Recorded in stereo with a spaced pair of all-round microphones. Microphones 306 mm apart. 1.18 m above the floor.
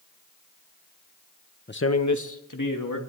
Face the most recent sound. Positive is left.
turn(degrees=85)